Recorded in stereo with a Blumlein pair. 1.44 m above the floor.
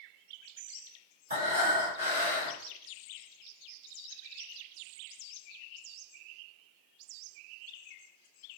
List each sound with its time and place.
1.3 s breathing: 70° right, 1.6 m